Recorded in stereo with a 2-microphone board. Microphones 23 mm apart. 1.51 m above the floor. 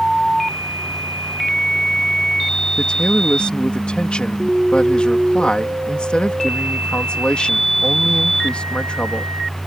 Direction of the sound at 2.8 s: 50° left (ahead or behind).